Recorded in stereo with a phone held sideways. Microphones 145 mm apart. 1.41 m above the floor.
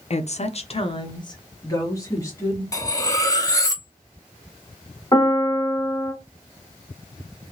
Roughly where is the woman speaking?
Left.